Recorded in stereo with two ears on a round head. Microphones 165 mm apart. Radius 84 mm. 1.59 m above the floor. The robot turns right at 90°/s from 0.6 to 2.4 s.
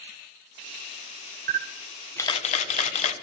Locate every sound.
1.5 s a camera shutter: 50° right (ahead or behind), 1.1 m; by 3.1 s 35° left (ahead or behind), 1.1 m